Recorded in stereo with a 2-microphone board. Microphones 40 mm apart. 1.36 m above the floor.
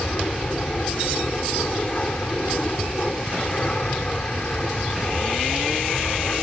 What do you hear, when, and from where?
0.0 s an aircraft: 30° left (ahead or behind)